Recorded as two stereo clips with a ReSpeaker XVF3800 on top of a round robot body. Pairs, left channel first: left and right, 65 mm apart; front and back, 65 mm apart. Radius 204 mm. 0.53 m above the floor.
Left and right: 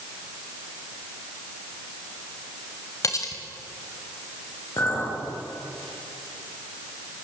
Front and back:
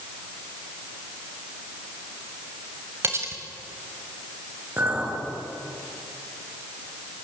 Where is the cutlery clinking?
130° left, 2.5 m.